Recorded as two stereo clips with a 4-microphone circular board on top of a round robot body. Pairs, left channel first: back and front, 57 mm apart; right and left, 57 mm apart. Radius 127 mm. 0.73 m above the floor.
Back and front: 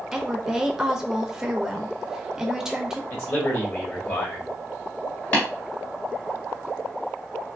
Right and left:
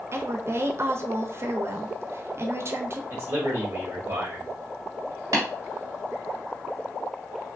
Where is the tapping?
120° left, 1.3 m.